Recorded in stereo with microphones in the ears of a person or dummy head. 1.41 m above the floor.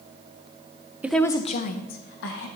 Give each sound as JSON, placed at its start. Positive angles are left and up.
{"t": 1.0, "sound": "a woman speaking", "side_deg": -10, "distance_m": 0.6}